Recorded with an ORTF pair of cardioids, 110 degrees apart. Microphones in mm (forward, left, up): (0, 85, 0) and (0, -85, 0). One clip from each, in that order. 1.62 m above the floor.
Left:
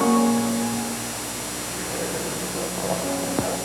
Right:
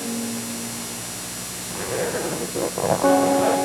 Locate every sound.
1.7 s a zipper: 35° right, 1.2 m